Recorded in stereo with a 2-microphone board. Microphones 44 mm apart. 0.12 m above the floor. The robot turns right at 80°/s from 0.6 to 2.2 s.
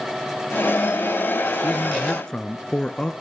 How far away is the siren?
I don't hear a siren.